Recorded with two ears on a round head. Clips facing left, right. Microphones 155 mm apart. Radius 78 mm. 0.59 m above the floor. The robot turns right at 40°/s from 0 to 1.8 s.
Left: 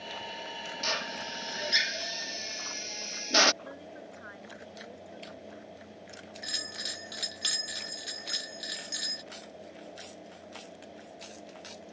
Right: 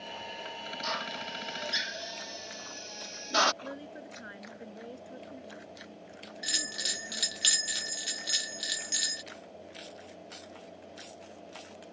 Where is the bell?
35° right (ahead or behind).